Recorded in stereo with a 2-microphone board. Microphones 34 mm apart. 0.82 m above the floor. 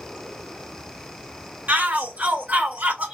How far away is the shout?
About 3 m.